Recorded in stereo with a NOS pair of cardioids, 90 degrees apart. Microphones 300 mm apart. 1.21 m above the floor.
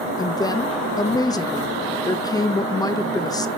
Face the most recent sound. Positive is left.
turn(degrees=15)